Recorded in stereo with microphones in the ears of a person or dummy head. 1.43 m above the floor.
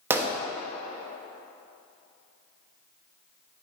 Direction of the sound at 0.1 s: 10° right (ahead or behind).